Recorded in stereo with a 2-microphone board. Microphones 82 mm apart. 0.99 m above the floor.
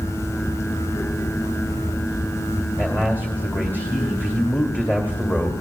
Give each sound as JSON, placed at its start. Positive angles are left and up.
{"t": 2.8, "sound": "a man speaking", "side_deg": 25, "distance_m": 2.0}